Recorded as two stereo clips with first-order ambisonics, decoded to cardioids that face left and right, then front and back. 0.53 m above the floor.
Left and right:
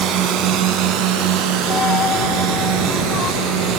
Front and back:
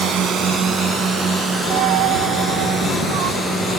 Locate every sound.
0.0 s a drone: 130° right; by 3.8 s 95° right
1.7 s a dropped coin: 155° left